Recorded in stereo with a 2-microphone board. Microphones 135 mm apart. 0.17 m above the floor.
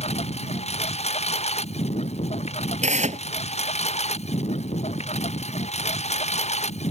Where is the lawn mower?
50° left (ahead or behind); by 6.9 s 55° left (ahead or behind).